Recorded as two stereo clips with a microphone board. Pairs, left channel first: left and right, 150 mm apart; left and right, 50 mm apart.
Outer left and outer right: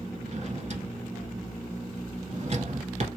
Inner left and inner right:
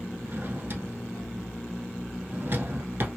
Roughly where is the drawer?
Right.